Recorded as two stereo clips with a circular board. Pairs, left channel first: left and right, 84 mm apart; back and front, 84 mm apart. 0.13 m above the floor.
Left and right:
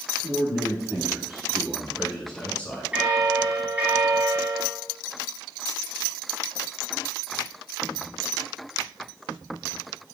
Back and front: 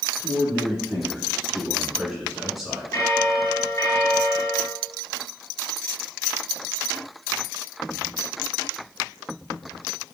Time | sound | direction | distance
0.2 | a man speaking | 95° right | 1.6 m
2.9 | a bell | 155° right | 2 m